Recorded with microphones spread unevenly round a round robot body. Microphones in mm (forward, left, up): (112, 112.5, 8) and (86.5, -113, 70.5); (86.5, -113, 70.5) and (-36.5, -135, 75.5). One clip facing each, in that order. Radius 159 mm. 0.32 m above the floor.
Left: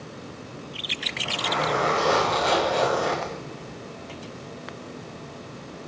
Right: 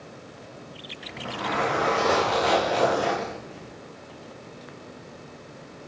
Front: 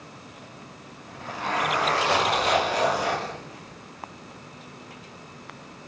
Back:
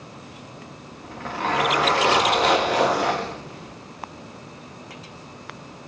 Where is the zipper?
150° right, 7.5 m.